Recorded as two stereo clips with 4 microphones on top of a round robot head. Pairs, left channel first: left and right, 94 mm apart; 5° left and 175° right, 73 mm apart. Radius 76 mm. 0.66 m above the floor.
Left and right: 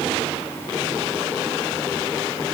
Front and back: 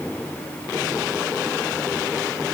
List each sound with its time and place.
Only background noise.